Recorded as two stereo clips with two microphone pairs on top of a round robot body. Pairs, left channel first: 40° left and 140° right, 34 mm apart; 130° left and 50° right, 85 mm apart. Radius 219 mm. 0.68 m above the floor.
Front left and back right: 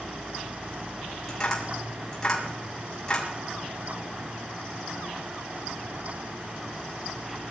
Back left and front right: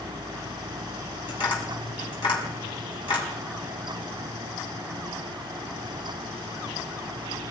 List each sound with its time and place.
1.3 s tapping: 120° left, 7 m